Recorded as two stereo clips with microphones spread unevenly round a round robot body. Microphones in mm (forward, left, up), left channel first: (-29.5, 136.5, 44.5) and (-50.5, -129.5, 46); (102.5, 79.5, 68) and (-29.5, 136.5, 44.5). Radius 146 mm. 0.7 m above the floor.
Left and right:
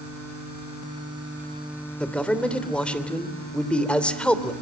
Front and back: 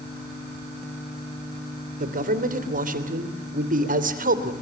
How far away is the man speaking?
About 3 m.